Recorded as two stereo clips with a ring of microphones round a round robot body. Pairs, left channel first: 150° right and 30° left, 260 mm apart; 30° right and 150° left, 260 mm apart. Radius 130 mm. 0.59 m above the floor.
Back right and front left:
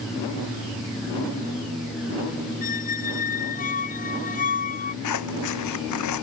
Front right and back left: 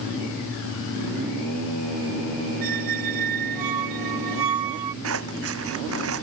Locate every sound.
2.6 s a squeak: 150° left
5.0 s scissors: 170° right